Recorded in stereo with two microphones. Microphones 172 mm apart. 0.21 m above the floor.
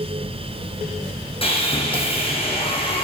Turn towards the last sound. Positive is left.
turn(degrees=35)  # may be behind; listen again after turning